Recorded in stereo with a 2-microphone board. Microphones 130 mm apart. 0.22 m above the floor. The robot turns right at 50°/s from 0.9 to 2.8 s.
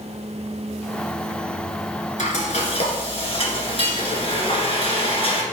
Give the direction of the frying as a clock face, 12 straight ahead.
9 o'clock.